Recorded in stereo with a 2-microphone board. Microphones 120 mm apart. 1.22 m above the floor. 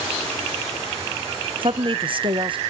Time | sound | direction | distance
1.6 | a woman speaking | 45° right (ahead or behind) | 0.7 m